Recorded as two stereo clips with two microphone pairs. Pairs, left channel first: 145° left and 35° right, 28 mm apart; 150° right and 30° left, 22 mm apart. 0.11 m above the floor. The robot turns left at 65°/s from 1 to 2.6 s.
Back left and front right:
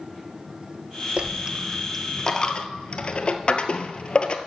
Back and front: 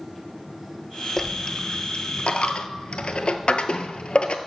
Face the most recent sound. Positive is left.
turn(degrees=-170)